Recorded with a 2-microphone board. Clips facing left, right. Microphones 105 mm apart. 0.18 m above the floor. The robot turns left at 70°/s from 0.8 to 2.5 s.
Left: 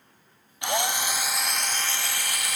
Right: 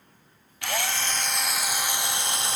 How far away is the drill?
About 0.6 m.